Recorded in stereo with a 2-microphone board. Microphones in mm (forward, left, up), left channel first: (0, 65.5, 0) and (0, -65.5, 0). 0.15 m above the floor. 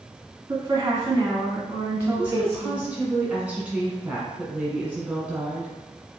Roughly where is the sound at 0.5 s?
Right.